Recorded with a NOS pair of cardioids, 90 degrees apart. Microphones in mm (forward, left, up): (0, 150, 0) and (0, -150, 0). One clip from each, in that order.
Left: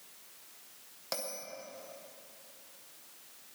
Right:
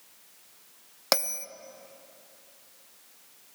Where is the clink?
I don't hear a clink.